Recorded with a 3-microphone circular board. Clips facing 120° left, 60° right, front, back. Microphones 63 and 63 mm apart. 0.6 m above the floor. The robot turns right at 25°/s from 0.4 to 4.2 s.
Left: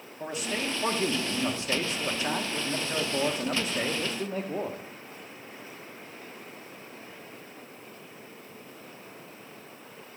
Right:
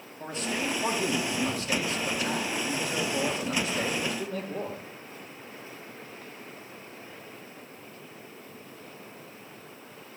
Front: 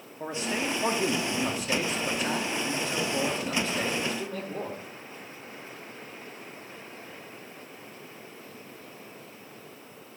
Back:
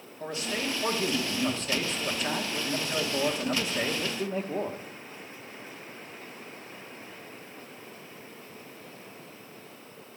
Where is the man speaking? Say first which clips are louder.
Even, front 2 dB; 45° left, 0.9 m; by 4.8 s 140° left, 0.9 m.